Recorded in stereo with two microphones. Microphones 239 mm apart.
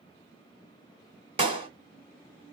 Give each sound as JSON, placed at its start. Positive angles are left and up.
{"t": 1.4, "sound": "a clap", "side_deg": -25, "distance_m": 1.1}